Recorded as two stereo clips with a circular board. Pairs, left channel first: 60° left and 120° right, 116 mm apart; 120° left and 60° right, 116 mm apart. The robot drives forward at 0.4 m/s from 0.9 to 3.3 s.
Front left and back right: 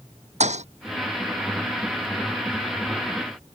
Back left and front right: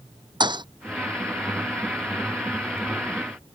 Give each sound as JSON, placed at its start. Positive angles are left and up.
{"t": 0.4, "sound": "a thud", "azimuth_deg": -110}